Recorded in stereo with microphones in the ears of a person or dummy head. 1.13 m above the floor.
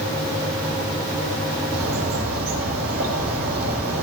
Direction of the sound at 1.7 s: 75° right (ahead or behind).